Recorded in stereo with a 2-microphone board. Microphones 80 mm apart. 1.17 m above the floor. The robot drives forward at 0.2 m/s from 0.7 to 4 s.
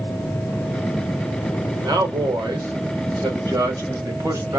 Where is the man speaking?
50° right (ahead or behind), 1.5 m; by 4.6 s 40° right (ahead or behind), 1.8 m.